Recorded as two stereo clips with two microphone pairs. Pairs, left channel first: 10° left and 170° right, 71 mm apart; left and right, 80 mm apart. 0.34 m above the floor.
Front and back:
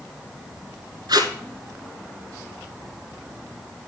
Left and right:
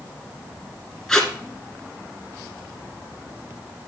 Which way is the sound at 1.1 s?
175° left.